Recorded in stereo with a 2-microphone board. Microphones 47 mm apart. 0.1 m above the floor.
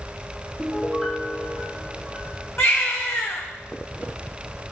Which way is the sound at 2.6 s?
75° left (ahead or behind).